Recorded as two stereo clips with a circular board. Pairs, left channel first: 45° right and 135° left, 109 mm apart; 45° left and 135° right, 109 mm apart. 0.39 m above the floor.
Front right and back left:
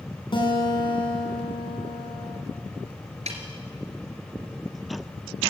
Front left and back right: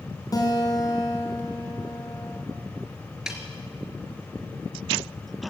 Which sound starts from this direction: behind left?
A snare drum, at 3.3 s.